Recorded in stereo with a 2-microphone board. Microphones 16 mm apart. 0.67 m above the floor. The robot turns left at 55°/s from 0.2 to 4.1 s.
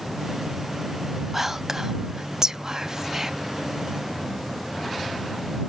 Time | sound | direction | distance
1.3 | whispering | 10° right (ahead or behind) | ?